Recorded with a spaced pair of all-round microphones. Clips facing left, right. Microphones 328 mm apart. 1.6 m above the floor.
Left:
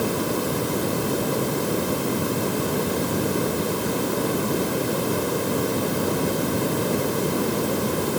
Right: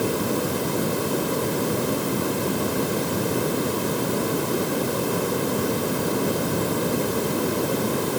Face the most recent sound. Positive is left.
No sound to turn to.